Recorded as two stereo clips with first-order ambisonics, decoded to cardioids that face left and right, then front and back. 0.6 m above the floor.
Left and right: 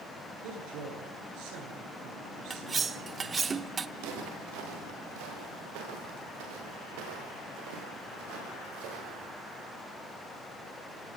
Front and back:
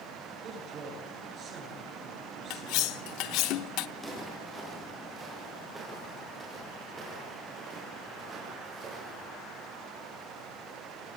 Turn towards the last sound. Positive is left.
turn(degrees=-115)